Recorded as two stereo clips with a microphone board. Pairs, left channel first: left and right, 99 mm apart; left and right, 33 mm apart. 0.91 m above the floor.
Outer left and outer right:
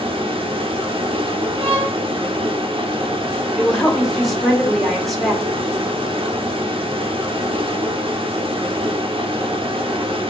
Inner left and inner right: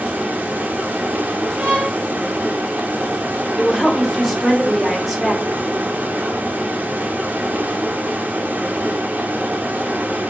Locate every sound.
0.0 s running water: 65° right (ahead or behind), 0.8 m
1.6 s a violin: 70° right (ahead or behind), 2.5 m
3.6 s a woman speaking: centre (ahead or behind), 1.5 m